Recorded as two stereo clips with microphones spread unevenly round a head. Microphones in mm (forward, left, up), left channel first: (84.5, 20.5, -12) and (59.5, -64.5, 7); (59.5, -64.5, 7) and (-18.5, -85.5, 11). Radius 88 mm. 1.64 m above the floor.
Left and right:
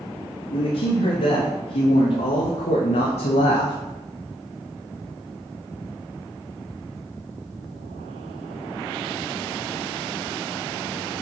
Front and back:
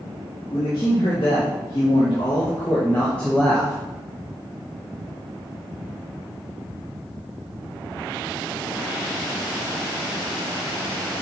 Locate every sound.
0.5 s a man speaking: 70° left, 2.5 m; by 3.8 s 115° left, 0.9 m